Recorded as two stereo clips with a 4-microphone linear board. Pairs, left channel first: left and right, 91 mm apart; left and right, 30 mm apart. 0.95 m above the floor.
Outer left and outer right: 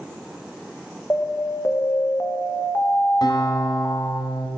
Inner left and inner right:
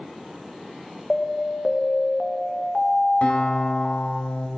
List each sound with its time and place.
1.1 s an alarm: 25° left (ahead or behind), 1.4 m
3.2 s a guitar: 50° left (ahead or behind), 2.5 m